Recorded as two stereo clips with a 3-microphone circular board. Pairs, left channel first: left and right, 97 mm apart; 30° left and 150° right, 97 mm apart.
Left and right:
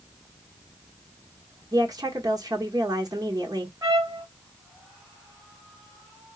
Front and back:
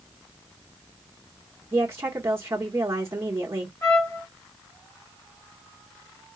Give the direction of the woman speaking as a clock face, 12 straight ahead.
3 o'clock.